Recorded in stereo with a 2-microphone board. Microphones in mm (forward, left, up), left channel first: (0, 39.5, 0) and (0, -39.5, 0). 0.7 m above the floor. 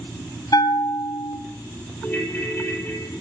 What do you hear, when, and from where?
0.5 s a bell: 60° left (ahead or behind), 1.1 m
2.0 s a ringtone: 25° left (ahead or behind), 2.5 m